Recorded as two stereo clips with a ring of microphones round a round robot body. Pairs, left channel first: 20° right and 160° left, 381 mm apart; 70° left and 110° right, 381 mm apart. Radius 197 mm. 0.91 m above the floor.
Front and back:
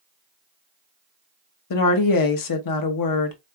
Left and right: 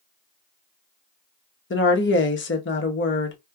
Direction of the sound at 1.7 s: 10° left.